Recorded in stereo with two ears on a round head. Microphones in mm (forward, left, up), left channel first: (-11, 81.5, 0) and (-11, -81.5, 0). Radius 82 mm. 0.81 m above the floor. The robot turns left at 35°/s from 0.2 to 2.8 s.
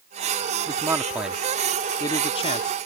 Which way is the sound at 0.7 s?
25° right (ahead or behind).